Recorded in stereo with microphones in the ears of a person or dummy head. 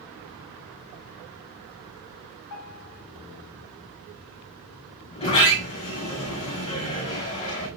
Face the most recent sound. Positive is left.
turn(degrees=30)  # may be behind; listen again after turning